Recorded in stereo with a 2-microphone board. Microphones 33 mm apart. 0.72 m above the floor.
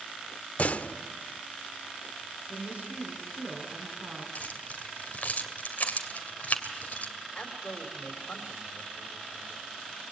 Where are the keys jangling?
50° left (ahead or behind), 2.5 m.